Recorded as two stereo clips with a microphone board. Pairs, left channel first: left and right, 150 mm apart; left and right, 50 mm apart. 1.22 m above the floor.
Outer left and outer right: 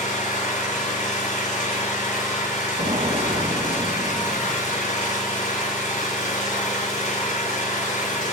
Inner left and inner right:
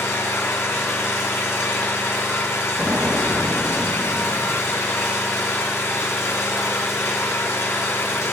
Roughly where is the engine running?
Left.